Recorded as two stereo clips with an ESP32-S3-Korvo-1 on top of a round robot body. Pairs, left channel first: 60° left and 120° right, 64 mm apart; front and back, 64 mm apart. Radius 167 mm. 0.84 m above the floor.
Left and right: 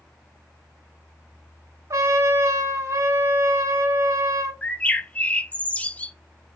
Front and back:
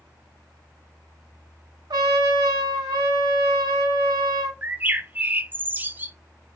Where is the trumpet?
165° right, 0.5 m.